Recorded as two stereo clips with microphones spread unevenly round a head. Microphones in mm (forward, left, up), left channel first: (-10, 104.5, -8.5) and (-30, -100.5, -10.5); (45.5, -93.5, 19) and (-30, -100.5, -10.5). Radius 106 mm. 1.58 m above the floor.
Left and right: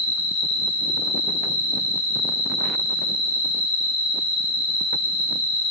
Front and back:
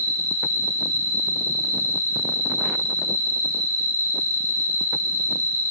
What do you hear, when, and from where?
0.0 s an insect: 110° left, 3 m